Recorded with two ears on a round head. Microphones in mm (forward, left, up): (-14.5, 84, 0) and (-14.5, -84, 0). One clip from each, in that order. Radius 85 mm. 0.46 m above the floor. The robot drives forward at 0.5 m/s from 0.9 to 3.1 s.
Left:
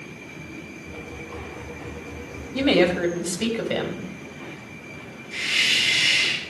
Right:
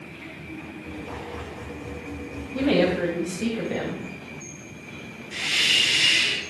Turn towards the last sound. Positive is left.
turn(degrees=-5)  # may be behind; listen again after turning